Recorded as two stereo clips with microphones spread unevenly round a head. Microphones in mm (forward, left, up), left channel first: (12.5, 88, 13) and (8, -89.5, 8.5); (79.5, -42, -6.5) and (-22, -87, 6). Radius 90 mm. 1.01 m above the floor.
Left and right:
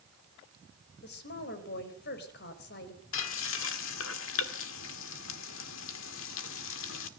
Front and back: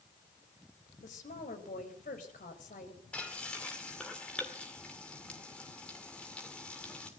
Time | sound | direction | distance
1.0 | a woman speaking | 55° left | 4 m
3.1 | frying | 110° left | 2 m